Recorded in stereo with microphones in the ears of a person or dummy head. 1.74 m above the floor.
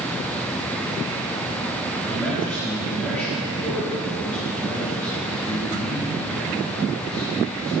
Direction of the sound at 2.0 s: 5° left (ahead or behind).